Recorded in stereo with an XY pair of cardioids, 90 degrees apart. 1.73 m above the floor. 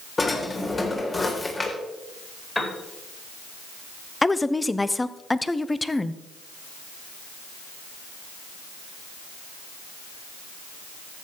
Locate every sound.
0.2 s a drawer: 30° left, 3.5 m
2.5 s a piano: 15° left, 4.5 m
4.2 s a woman speaking: 15° left, 0.8 m